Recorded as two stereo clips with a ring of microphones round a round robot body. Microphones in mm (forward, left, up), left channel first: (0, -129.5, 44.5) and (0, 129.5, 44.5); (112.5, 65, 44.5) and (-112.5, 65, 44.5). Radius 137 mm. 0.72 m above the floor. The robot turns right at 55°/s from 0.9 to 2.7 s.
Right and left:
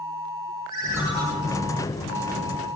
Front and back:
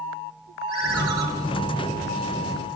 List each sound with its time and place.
0.7 s a ringtone: 170° left, 5 m; by 1.2 s 170° right, 5 m